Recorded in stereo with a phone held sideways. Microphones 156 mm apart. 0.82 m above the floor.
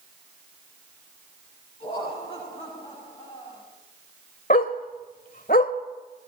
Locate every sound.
1.8 s laughter: 40° left (ahead or behind), 8 m; by 3.6 s 35° left (ahead or behind), 7.5 m
4.5 s a dog barking: 65° left (ahead or behind), 1.6 m